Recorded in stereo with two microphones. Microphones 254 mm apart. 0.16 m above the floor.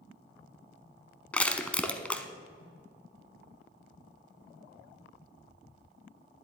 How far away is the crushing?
About 0.7 m.